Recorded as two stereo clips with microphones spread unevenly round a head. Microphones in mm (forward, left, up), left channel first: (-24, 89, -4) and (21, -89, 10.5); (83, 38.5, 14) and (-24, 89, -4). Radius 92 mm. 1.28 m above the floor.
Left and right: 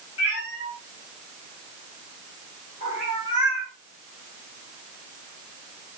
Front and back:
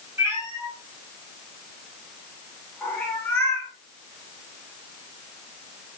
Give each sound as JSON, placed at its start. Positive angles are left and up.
{"t": 0.2, "sound": "a cat meowing", "azimuth_deg": 85, "distance_m": 8.0}